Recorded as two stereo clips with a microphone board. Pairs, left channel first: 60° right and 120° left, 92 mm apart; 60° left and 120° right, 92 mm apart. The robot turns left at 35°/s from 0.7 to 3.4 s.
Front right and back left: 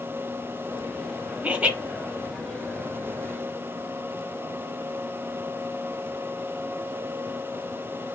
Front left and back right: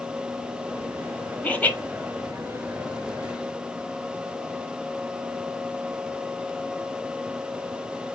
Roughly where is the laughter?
Left.